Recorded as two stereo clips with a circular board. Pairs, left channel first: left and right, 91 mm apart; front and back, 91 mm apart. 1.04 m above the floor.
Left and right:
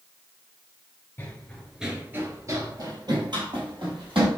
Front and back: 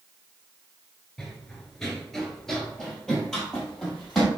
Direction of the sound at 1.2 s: 80° left.